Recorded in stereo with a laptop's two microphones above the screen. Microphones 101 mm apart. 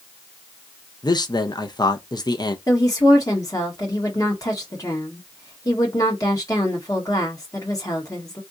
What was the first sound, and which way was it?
A man speaking, 40° left (ahead or behind).